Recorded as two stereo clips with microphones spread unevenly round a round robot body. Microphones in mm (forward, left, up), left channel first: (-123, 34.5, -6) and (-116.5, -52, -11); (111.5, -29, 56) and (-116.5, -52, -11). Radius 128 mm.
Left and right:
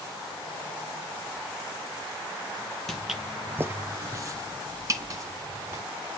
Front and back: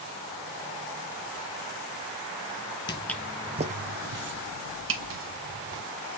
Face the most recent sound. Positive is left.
turn(degrees=-140)